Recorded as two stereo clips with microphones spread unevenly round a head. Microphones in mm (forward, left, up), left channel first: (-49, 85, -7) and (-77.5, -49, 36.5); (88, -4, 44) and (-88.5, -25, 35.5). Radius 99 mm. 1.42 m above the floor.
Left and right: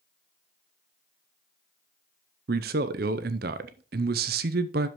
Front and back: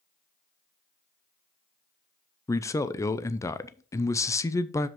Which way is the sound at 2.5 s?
70° right.